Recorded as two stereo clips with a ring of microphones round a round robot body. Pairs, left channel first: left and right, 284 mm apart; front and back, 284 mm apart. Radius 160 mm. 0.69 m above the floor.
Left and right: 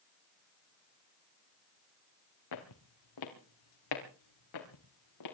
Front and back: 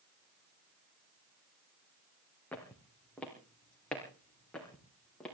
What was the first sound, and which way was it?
Footsteps, 85° left.